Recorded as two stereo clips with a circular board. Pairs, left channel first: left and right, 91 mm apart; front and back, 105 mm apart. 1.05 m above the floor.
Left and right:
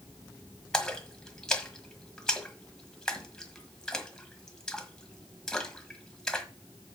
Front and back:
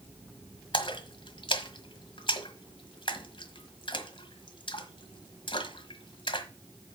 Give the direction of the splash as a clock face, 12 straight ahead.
12 o'clock.